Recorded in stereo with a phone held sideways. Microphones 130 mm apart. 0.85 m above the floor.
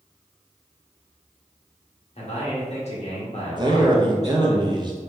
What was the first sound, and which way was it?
A man speaking, 55° left (ahead or behind).